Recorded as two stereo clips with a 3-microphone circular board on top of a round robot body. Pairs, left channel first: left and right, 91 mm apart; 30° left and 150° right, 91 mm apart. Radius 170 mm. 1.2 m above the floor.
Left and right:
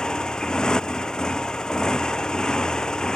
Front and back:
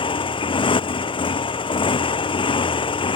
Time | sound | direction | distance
0.0 | a motorcycle | 5° left | ?